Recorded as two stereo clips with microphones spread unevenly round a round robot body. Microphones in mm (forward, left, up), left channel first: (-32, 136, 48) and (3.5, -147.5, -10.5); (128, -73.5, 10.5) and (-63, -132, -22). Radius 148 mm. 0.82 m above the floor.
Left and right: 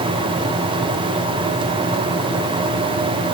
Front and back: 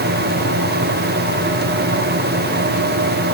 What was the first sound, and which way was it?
Only background noise.